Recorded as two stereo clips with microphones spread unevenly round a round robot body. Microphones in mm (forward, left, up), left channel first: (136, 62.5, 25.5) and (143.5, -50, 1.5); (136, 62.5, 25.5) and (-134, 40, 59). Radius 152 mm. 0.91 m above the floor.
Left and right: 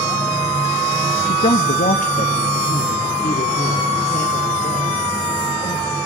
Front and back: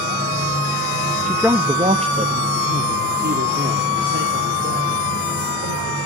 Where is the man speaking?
90° left, 0.9 m; by 6.0 s 140° left, 4 m.